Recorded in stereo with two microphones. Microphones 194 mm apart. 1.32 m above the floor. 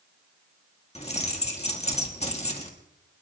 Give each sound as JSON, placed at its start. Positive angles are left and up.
{"t": 0.9, "sound": "keys jangling", "side_deg": 35, "distance_m": 1.9}